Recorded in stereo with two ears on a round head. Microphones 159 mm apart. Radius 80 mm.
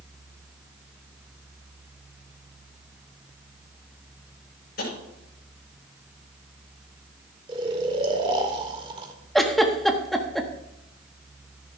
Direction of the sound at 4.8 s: 55° left (ahead or behind).